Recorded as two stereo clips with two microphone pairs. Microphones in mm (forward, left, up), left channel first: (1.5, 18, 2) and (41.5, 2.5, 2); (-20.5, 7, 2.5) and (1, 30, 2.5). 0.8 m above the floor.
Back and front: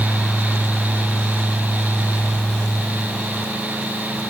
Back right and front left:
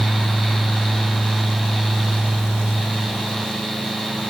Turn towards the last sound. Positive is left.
No sound to turn to.